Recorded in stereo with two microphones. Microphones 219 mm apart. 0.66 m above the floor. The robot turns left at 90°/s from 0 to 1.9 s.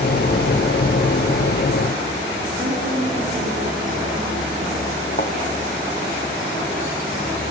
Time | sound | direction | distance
2.6 | a woman speaking | 25° right (ahead or behind) | 7 m
5.2 | a thud | 35° left (ahead or behind) | 2 m